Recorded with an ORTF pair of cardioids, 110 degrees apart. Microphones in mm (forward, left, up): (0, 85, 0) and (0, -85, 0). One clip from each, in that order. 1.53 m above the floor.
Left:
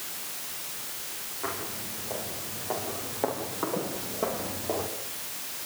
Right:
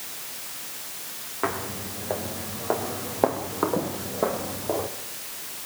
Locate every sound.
1.4 s footsteps: 70° right, 6.5 m; by 4.9 s 20° right, 4.5 m